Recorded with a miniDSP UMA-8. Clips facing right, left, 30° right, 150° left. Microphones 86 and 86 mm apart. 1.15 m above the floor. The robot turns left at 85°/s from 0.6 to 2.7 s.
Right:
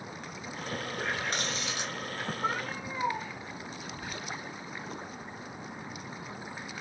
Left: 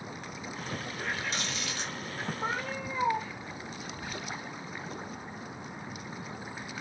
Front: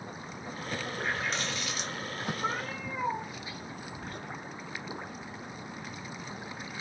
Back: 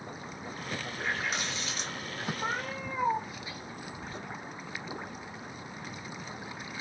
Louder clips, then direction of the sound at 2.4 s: Right 1 dB, even; 125° left.